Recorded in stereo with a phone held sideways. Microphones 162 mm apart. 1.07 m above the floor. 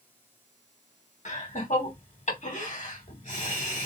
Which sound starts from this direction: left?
Laughter, at 1.2 s.